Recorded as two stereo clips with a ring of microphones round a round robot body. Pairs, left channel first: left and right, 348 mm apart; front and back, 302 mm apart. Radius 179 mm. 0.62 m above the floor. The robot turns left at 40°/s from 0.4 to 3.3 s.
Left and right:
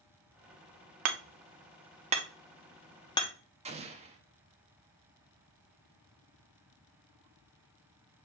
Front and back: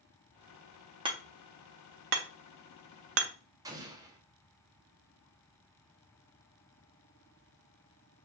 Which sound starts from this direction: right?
Hammering, at 1.1 s.